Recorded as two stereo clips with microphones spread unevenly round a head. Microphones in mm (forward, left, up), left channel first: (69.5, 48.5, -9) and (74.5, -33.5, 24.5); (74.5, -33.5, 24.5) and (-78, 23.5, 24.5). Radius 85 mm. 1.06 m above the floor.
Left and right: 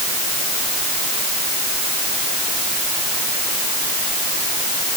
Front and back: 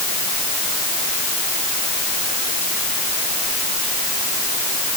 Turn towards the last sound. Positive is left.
No sound to turn to.